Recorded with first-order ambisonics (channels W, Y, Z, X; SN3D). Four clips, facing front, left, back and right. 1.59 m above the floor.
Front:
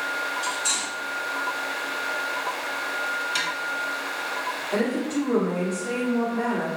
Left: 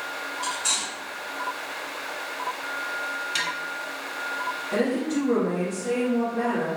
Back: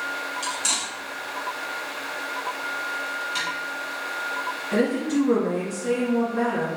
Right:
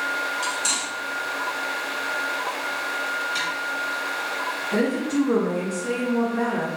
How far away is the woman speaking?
About 1.9 m.